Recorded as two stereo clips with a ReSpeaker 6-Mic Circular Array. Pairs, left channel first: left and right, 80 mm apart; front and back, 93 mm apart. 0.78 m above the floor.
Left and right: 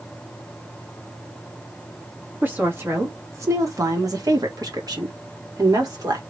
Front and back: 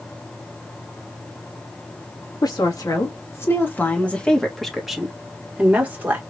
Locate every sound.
2.4 s a woman speaking: 30° right, 1.5 m; by 6.2 s 115° right, 1.9 m